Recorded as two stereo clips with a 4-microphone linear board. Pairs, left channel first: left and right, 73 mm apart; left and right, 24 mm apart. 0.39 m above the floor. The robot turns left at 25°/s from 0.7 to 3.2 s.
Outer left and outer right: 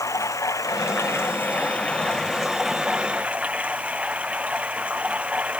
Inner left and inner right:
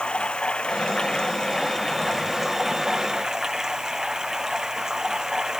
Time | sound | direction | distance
0.0 | running water | 45° left | ?